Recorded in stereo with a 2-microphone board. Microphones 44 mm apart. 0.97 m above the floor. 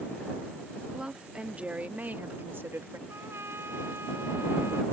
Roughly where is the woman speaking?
Centre.